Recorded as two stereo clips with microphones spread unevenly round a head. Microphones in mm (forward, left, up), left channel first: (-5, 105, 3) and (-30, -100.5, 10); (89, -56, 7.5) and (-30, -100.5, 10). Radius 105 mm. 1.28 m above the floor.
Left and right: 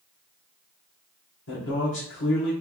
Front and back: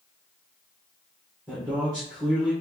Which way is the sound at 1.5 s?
105° left.